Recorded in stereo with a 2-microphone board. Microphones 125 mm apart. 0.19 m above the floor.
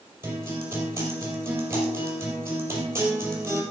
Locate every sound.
0.2 s a guitar: 20° right (ahead or behind), 4.5 m